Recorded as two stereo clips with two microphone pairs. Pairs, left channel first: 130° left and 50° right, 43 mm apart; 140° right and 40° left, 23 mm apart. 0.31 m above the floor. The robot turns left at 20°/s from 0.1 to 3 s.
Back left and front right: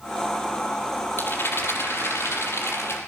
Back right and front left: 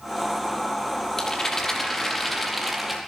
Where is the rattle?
155° left, 5.5 m; by 3.0 s 120° left, 5.5 m.